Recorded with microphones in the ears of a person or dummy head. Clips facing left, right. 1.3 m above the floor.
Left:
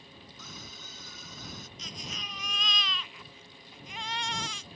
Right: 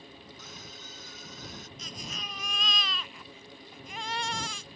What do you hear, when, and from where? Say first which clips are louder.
0.4 s a scream: right 1 dB; 75° left (ahead or behind)
1.8 s a baby crying: right 2 dB; 45° right (ahead or behind)